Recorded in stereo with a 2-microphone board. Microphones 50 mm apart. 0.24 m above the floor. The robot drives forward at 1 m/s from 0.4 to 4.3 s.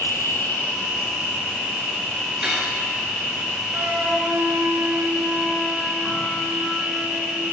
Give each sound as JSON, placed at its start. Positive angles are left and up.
{"t": 0.0, "sound": "an insect", "side_deg": 50, "distance_m": 0.9}
{"t": 2.4, "sound": "cutlery clinking", "side_deg": -10, "distance_m": 2.0}
{"t": 3.7, "sound": "a flute", "side_deg": -50, "distance_m": 1.2}